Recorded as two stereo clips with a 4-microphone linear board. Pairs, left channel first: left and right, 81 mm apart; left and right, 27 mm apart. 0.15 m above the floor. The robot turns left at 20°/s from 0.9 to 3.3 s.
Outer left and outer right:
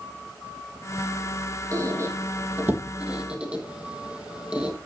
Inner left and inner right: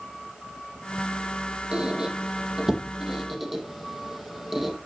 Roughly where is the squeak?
Right.